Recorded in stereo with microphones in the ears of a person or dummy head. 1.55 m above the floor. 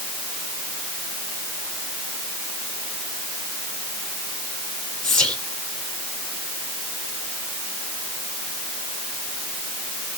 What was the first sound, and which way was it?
Whispering, 10° left (ahead or behind).